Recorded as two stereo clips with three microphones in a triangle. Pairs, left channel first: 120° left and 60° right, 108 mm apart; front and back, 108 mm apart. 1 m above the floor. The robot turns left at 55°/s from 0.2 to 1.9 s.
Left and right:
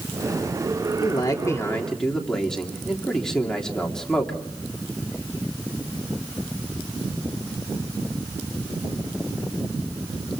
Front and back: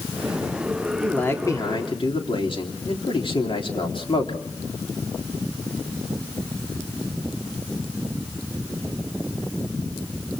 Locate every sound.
1.0 s a man speaking: 85° left, 3 m; by 4.4 s 35° left, 3 m